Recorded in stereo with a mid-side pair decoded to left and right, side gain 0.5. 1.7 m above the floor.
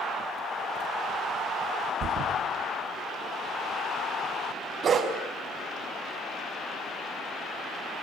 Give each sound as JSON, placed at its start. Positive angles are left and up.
{"t": 2.0, "sound": "a thud", "azimuth_deg": -60, "distance_m": 6.0}
{"t": 4.8, "sound": "a dog barking", "azimuth_deg": -45, "distance_m": 5.0}